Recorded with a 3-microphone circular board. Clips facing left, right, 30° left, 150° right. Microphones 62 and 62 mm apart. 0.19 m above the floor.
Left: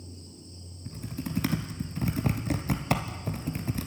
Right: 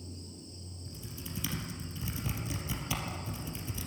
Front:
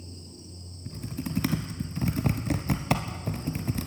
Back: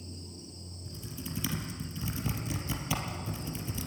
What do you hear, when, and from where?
0.8 s typing on a keyboard: 60° left, 1.3 m